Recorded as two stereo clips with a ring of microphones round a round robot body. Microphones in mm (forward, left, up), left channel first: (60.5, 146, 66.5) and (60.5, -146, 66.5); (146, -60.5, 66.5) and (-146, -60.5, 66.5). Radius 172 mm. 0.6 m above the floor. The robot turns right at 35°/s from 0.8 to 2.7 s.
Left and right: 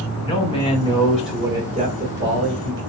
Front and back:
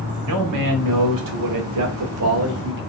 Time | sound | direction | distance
0.2 | a man speaking | 165° left | 1.6 m